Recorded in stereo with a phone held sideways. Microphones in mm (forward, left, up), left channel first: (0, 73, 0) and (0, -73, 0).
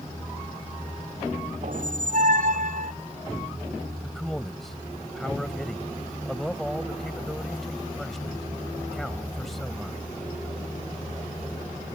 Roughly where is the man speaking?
Centre.